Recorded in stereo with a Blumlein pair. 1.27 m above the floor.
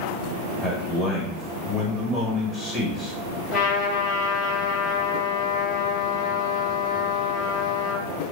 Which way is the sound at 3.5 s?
20° left.